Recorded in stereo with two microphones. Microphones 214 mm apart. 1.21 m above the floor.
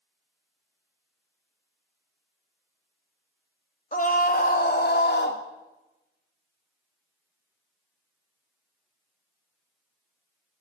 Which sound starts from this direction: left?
A scream, at 3.9 s.